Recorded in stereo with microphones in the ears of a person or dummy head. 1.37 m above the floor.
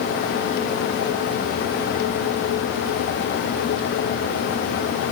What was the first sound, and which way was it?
Only background noise.